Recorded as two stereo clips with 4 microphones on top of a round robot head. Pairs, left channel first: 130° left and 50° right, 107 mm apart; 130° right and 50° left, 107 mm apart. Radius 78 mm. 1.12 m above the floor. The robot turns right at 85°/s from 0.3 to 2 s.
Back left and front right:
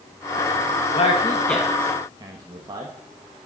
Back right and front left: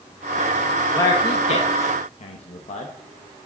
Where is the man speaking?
165° left, 1.5 m; by 2.9 s 110° right, 1.5 m.